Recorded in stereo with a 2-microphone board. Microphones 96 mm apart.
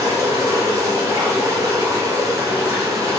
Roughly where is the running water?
Right.